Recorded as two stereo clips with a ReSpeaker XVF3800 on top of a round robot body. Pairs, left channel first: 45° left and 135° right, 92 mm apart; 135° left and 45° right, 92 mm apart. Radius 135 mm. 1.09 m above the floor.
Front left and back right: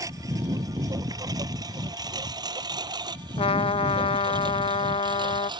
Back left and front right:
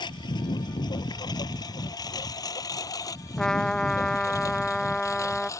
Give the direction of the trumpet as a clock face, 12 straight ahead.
10 o'clock.